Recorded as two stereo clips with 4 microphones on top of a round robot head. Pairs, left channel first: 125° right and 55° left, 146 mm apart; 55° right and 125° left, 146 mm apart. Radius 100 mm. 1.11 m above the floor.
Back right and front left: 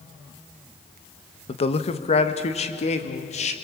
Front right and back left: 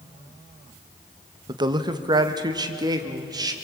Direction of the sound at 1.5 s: 175° right.